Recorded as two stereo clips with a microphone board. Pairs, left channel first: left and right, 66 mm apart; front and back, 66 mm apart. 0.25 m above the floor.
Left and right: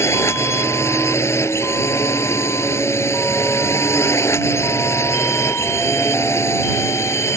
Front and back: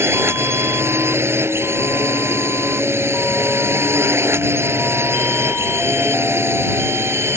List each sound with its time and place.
0.0 s a drone: 135° left